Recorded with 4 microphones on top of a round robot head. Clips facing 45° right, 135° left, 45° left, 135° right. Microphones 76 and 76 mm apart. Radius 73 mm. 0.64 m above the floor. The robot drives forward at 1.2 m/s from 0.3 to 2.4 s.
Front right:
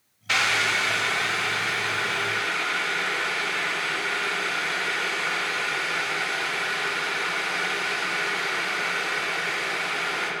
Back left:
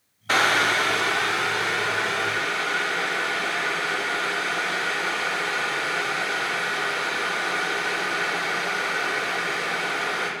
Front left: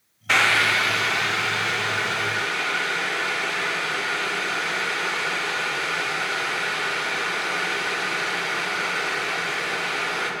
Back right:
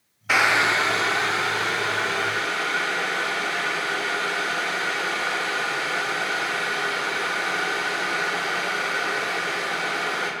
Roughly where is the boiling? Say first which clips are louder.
Back left 4 dB, even; behind left.